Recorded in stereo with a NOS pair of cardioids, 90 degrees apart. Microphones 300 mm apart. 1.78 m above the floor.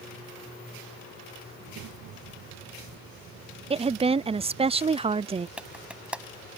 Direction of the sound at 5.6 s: 5° right.